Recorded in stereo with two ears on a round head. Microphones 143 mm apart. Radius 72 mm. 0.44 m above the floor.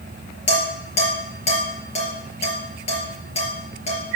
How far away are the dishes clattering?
About 5 m.